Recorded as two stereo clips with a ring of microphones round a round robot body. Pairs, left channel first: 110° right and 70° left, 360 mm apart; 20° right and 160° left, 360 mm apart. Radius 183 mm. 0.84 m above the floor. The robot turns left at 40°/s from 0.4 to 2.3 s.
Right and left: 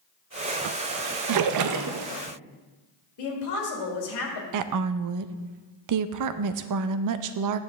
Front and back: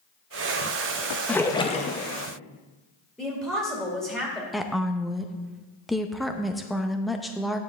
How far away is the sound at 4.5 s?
About 0.5 m.